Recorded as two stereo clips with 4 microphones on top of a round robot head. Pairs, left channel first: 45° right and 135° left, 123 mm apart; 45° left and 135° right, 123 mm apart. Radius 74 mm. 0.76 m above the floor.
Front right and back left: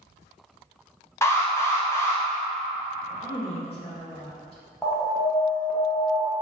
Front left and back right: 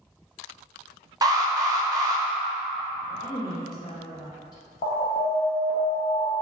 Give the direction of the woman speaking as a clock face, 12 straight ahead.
12 o'clock.